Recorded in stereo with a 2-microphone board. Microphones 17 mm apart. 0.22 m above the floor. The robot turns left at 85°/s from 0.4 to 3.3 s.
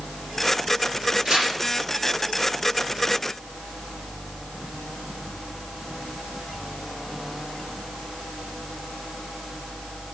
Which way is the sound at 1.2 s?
60° right (ahead or behind).